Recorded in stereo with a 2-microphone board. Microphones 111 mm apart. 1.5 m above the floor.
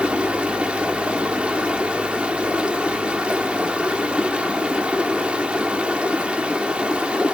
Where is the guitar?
No guitar in this recording.